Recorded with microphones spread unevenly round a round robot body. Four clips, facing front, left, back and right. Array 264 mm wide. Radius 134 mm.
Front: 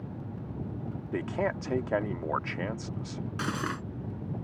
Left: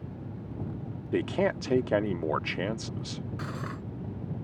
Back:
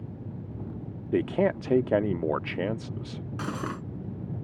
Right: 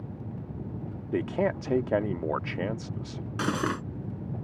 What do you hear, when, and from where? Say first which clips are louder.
1.1 s a man speaking: even, back 6 dB; 170° left
3.4 s cutlery clinking: right 14 dB, even; 85° right